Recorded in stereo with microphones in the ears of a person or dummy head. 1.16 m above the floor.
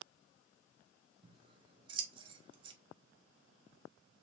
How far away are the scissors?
About 0.6 m.